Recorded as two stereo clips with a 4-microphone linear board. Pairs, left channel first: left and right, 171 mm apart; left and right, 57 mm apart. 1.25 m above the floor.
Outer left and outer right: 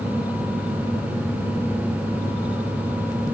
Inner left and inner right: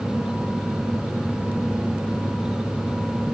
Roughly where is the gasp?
No gasp in this recording.